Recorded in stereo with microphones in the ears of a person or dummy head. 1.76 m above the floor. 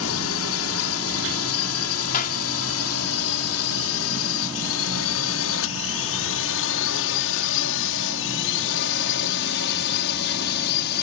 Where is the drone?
70° left (ahead or behind); by 11.0 s 60° left (ahead or behind).